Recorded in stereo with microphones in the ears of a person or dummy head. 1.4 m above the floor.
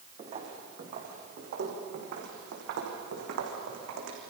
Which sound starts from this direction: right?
Footsteps, at 0.2 s.